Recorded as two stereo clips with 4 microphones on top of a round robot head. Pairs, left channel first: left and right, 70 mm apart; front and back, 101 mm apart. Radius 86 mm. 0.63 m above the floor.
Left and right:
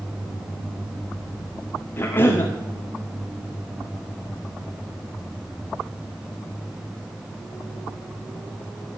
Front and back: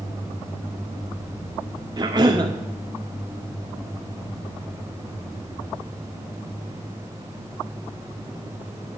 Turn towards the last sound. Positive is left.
turn(degrees=145)